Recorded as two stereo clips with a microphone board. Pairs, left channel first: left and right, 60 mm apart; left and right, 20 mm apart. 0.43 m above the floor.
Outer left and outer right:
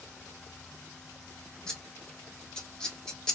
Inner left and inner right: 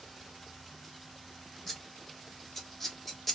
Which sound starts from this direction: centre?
Scissors, at 1.7 s.